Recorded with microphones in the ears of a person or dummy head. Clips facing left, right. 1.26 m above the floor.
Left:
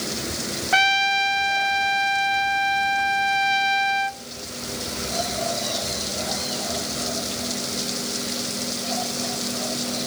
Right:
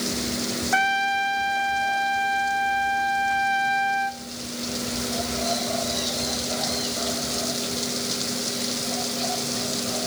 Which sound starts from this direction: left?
A trumpet, at 0.7 s.